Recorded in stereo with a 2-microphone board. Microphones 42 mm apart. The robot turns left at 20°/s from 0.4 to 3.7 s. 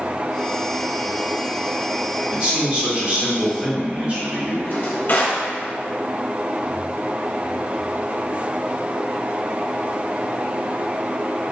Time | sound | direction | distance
2.3 | a man speaking | 25° right (ahead or behind) | 1.6 m
4.6 | a drawer | 50° left (ahead or behind) | 1.0 m